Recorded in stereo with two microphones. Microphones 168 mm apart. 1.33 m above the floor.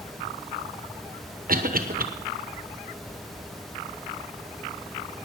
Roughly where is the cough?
Right.